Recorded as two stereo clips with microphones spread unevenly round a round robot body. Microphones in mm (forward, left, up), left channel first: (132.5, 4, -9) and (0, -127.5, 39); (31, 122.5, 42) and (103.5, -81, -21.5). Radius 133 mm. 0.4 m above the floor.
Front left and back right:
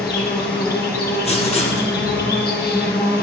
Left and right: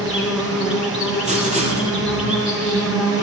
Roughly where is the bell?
No bell in this recording.